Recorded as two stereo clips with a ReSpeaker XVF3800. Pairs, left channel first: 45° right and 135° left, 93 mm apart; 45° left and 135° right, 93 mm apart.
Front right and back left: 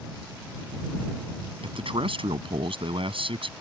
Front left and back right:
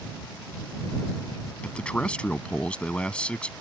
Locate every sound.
1.6 s a man speaking: 125° left